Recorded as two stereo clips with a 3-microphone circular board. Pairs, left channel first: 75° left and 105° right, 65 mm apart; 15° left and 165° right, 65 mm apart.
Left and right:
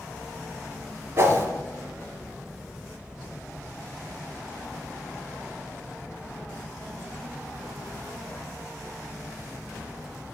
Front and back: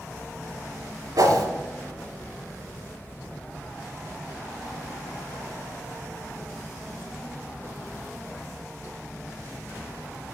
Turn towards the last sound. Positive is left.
turn(degrees=-145)